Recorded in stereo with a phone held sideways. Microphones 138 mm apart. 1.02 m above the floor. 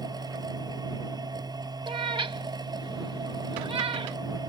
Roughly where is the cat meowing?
Right.